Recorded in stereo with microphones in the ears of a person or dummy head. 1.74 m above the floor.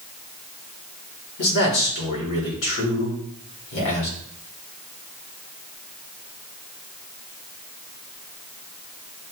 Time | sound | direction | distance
1.4 | a man speaking | 70° left (ahead or behind) | 1.5 m